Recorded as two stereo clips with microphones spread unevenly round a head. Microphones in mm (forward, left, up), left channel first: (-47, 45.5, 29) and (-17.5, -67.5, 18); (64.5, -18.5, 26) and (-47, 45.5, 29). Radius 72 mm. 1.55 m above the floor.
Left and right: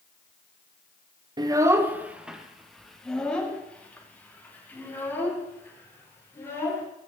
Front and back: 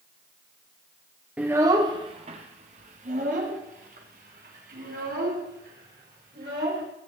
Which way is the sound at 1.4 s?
130° right.